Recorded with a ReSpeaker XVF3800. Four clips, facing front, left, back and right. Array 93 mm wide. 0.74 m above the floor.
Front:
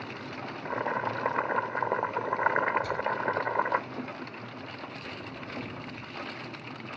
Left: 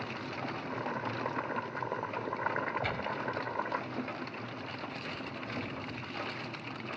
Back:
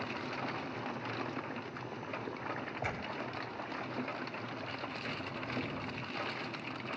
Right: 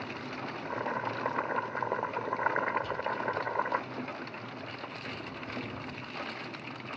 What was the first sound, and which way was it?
Boiling, 15° right.